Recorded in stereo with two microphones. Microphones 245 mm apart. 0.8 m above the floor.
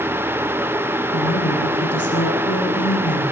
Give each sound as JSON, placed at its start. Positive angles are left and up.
{"t": 1.1, "sound": "a woman speaking", "side_deg": 80, "distance_m": 8.5}